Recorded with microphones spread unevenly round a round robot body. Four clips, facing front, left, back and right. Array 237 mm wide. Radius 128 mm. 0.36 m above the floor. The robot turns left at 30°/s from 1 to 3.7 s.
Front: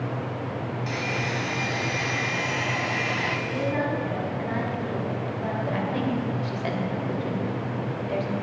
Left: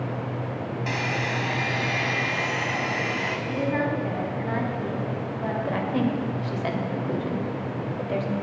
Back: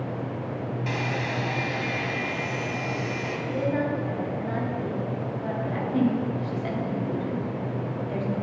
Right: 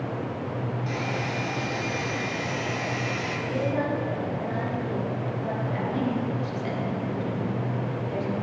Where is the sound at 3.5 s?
70° left, 3 m; by 5.5 s 65° left, 3 m.